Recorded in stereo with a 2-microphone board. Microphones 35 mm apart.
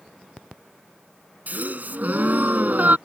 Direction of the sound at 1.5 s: 55° right (ahead or behind).